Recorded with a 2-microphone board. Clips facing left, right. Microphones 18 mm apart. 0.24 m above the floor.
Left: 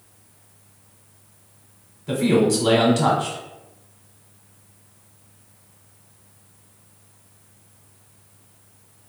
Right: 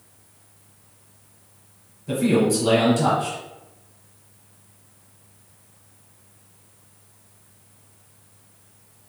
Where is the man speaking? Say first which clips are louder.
Left 1 dB; 30° left (ahead or behind), 1.0 m.